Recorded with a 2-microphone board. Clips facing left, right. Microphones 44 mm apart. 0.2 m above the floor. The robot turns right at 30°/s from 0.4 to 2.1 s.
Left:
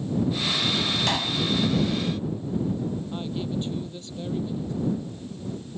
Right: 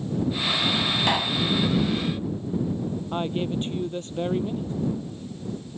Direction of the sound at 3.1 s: 45° right (ahead or behind).